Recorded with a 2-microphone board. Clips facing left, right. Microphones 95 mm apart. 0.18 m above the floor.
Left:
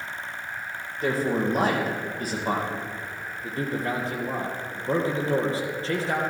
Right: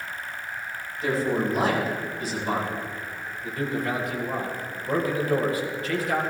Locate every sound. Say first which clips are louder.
1.0 s a man speaking: even; 50° left (ahead or behind), 6 m
3.4 s a man speaking: right 1 dB; 30° left (ahead or behind), 4 m